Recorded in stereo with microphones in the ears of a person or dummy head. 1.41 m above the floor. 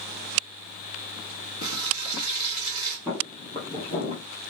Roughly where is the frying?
Left.